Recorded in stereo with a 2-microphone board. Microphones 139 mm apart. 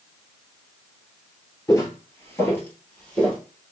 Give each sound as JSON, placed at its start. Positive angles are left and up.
{"t": 1.7, "sound": "footsteps", "side_deg": 25, "distance_m": 1.0}